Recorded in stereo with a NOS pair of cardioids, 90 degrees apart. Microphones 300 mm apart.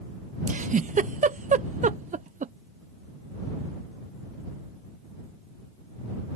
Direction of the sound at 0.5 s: 25° right.